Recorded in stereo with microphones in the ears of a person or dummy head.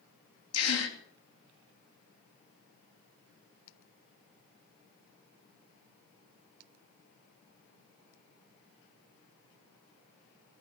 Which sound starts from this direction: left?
A gasp, at 0.5 s.